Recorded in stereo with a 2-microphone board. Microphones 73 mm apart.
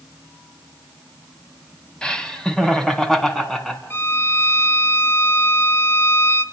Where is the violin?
35° left (ahead or behind), 1.2 m.